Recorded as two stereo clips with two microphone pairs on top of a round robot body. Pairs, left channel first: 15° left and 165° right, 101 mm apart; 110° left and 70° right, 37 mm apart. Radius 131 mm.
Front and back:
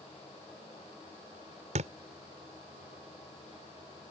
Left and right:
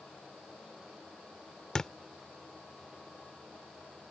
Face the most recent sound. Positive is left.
turn(degrees=-170)